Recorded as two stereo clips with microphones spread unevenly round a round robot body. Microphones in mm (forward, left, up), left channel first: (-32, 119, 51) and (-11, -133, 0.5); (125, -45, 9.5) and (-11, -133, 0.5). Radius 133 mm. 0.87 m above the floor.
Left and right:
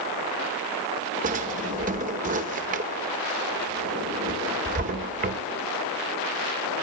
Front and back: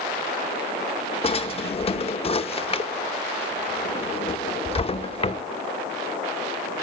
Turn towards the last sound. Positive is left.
turn(degrees=-20)